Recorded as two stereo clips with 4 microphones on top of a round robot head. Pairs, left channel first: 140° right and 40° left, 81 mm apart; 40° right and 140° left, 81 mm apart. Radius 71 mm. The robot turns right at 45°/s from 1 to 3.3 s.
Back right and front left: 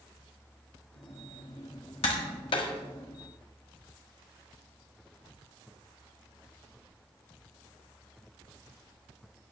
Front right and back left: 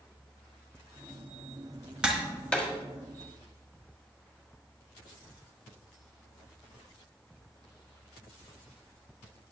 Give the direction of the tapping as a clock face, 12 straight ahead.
5 o'clock.